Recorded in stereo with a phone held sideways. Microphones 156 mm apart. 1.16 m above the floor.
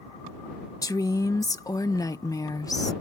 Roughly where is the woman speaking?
Left.